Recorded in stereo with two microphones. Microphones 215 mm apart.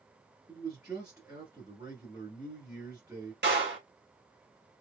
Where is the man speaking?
15° right (ahead or behind), 1.7 m.